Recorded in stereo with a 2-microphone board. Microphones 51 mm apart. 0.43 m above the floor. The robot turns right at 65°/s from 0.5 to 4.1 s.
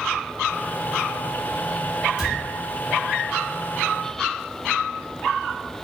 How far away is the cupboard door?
About 2.5 m.